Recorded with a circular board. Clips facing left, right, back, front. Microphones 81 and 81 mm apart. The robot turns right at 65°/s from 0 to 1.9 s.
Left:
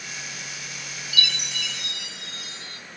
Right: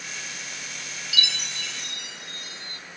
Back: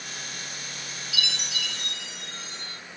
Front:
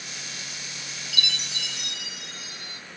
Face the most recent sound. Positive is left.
turn(degrees=85)